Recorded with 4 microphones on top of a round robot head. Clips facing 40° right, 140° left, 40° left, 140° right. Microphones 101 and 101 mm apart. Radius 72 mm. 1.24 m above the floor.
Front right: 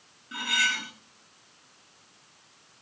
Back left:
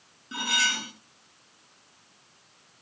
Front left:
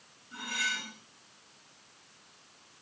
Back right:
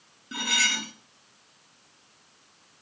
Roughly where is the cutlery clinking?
Behind right.